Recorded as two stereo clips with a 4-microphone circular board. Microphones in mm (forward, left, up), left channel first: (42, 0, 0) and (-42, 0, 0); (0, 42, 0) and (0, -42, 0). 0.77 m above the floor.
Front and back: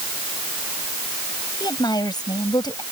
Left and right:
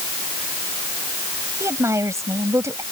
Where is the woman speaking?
35° right.